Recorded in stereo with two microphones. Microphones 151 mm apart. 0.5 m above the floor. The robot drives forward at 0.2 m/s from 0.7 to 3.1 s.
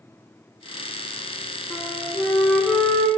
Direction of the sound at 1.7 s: 10° left (ahead or behind).